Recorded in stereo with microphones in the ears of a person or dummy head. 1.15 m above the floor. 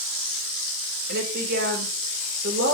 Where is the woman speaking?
70° right (ahead or behind), 3.5 m.